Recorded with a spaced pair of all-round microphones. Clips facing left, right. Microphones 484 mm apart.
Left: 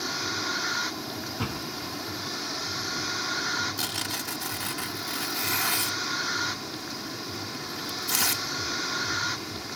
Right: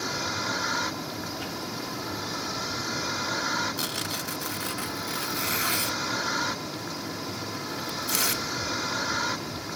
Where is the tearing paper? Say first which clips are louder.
Right 2 dB; 15° left (ahead or behind).